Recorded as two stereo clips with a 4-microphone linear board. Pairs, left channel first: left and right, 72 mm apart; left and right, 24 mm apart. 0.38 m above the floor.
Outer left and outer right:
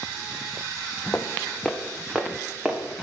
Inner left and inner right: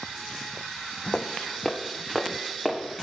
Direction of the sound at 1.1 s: 20° left (ahead or behind).